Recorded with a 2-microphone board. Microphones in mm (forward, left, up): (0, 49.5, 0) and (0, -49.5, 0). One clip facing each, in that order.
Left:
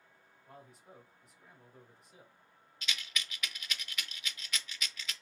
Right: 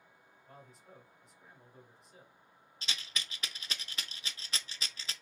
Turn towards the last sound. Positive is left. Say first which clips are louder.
# left 1 dB
turn(degrees=-35)  # may be behind; listen again after turning